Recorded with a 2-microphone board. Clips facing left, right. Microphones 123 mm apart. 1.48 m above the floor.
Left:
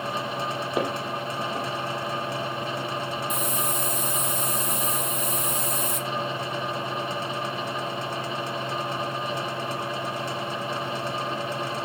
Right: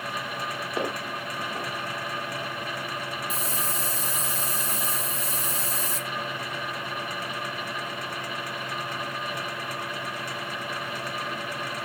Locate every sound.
0.8 s footsteps: 15° left (ahead or behind), 3.5 m
3.3 s a hiss: 35° right (ahead or behind), 0.7 m